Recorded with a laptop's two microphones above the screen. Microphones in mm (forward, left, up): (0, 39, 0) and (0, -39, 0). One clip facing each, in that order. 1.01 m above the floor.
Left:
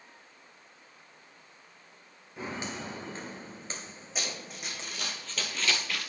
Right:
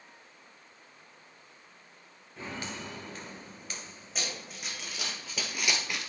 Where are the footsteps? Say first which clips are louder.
Left 2 dB; 20° left (ahead or behind), 1.1 m; by 5.2 s 30° left (ahead or behind), 1.5 m.